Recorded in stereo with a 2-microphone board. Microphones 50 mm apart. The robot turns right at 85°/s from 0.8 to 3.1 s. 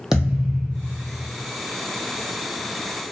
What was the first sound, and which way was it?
A thud, 165° right.